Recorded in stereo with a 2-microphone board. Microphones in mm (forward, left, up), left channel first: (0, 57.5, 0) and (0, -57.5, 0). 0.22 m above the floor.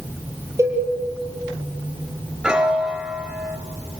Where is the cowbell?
25° right (ahead or behind), 7 m.